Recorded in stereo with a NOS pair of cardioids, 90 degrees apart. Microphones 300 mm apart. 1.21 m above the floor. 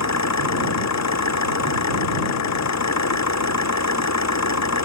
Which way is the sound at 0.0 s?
65° left.